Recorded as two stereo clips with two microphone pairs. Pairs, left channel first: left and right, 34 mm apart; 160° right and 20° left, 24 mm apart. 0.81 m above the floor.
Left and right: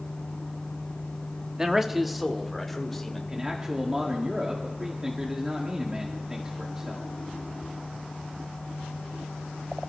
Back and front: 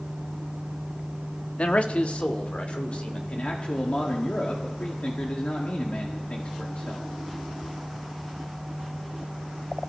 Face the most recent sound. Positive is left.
turn(degrees=-155)